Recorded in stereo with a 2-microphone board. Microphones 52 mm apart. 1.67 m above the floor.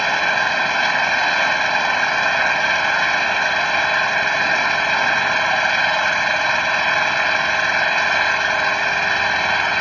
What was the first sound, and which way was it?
An engine running, 5° left (ahead or behind).